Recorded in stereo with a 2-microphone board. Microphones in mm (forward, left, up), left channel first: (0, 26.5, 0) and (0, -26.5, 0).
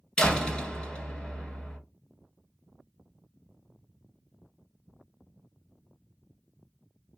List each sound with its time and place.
0.2 s a door slam: 15° left (ahead or behind), 1.3 m